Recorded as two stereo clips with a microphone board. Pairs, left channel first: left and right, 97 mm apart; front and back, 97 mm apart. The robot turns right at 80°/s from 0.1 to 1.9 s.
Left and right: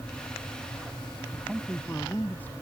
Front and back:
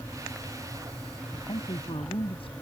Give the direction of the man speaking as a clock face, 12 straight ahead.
1 o'clock.